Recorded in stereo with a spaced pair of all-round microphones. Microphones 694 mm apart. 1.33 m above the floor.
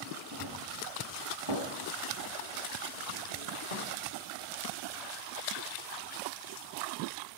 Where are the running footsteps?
25° right (ahead or behind), 4 m; by 3.9 s 70° right (ahead or behind), 4.5 m.